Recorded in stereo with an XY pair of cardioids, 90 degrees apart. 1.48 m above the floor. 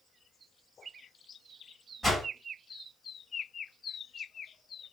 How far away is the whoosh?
About 2.5 m.